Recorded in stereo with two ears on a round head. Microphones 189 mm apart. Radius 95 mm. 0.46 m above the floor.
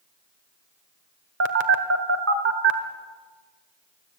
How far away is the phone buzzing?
About 1.7 m.